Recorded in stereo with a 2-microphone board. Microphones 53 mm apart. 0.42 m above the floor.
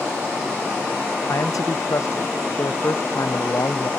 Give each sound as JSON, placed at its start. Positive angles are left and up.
{"t": 1.3, "sound": "a man speaking", "side_deg": 80}